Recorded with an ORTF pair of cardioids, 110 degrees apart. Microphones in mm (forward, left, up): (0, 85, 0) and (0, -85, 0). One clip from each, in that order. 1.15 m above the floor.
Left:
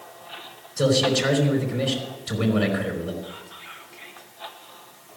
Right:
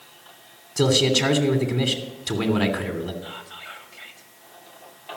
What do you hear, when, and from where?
0.8 s a man speaking: 70° right, 3 m
3.2 s whispering: 65° right, 2.5 m